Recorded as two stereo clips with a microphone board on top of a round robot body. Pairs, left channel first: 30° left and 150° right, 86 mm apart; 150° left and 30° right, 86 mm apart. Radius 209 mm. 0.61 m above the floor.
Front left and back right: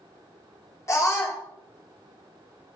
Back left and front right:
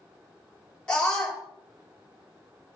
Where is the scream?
75° left, 1.6 m.